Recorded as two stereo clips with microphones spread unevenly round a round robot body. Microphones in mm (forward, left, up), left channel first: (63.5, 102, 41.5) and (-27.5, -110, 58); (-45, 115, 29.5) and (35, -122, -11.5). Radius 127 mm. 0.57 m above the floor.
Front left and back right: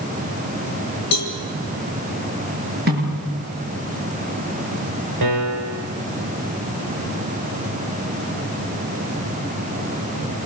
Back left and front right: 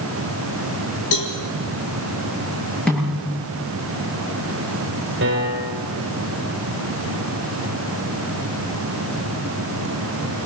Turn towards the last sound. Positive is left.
turn(degrees=-120)